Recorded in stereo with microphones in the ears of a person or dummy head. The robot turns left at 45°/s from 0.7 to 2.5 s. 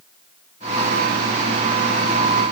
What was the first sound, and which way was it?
Only background noise.